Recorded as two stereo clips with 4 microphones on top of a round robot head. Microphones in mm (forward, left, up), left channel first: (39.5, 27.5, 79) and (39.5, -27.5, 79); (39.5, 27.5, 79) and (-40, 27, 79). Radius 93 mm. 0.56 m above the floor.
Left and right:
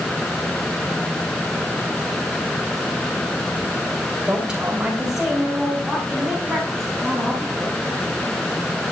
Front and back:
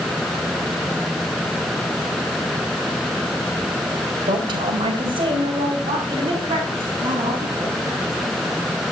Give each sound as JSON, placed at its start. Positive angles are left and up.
{"t": 4.3, "sound": "a woman speaking", "azimuth_deg": -165, "distance_m": 3.0}